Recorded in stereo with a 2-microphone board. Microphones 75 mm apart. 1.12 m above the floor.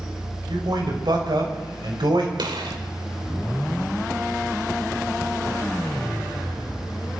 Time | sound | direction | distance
0.5 | a man speaking | 75° right (ahead or behind) | 6.5 m
2.4 | a gunshot | 85° right | 2.5 m